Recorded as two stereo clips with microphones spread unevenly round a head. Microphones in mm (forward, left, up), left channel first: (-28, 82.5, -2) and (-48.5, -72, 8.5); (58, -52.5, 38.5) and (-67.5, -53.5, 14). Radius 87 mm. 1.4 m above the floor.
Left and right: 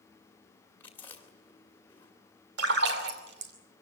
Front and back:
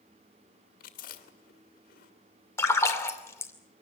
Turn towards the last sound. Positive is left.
turn(degrees=-65)